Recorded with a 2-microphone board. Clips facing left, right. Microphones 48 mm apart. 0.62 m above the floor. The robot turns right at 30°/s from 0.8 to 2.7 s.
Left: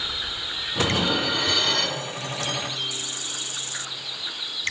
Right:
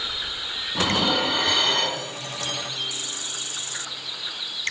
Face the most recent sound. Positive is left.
turn(degrees=-10)